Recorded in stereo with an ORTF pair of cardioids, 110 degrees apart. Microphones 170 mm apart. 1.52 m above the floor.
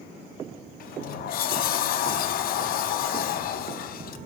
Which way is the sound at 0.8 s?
60° left.